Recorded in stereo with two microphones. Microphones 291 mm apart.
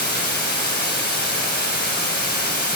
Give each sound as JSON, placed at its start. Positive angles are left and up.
{"t": 0.0, "sound": "running water", "side_deg": 35, "distance_m": 2.5}